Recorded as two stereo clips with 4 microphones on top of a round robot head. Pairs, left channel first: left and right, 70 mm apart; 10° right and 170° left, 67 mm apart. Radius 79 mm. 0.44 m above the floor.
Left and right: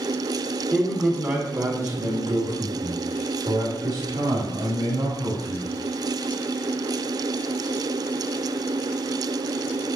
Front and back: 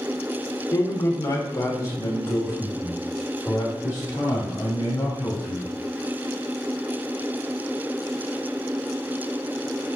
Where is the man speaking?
5° right, 1.6 m; by 5.7 s 55° right, 5.5 m.